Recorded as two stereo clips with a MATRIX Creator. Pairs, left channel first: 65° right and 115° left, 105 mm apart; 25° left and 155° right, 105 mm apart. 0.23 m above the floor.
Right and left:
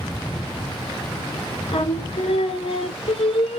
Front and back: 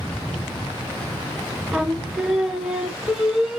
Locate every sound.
1.7 s singing: 75° right, 0.5 m